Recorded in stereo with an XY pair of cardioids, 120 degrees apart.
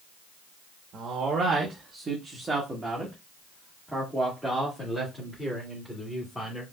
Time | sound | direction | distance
0.9 | a man speaking | 55° right | 1.3 m